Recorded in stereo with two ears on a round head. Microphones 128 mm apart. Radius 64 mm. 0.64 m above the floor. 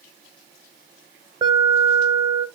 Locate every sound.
1.4 s an alarm: 30° right (ahead or behind), 1.7 m